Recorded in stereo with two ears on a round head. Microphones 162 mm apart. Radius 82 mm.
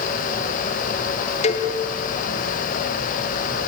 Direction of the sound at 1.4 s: 40° left (ahead or behind).